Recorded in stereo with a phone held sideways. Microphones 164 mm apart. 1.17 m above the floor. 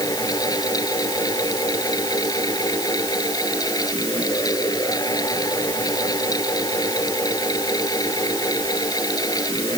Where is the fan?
25° left (ahead or behind).